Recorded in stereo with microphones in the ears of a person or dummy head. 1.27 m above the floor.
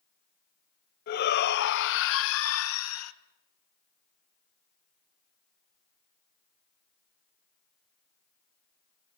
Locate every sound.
1.1 s a shout: 55° left (ahead or behind), 1.6 m; by 3.1 s 85° left, 1.7 m